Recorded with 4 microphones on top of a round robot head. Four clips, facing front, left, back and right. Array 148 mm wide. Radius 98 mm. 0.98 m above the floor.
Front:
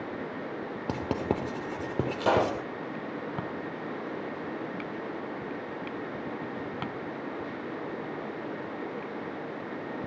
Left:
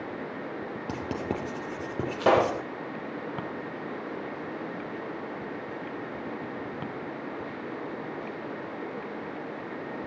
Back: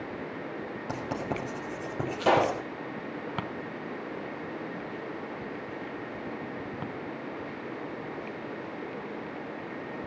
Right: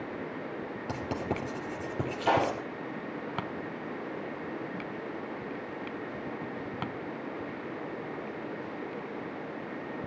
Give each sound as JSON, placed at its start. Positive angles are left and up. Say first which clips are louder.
{"t": 0.9, "sound": "writing", "louder": "left 1 dB, front 4 dB", "azimuth_deg": 20, "distance_m": 4.5}
{"t": 2.2, "sound": "a pop", "louder": "left 5 dB, back 2 dB", "azimuth_deg": 80, "distance_m": 6.0}